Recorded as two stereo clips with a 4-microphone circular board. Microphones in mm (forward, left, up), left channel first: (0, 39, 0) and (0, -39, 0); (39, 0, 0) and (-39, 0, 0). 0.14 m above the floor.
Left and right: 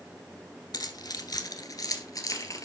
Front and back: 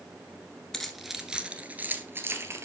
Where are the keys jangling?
85° left, 1.4 m; by 2.7 s 130° left, 1.9 m.